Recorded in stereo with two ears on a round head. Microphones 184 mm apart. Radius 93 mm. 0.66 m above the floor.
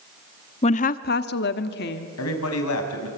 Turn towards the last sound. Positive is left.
turn(degrees=80)